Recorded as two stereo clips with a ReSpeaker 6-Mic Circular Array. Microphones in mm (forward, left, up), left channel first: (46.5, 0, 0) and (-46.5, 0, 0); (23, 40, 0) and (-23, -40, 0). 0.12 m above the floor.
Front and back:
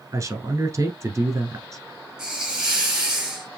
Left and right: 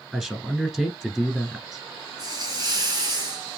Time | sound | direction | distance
0.1 | a man speaking | 160° left | 1.4 m
2.2 | a hiss | 100° right | 2.5 m